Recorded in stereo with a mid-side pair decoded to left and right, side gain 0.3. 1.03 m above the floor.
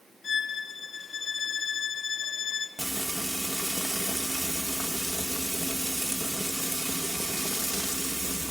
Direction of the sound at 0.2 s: 65° left.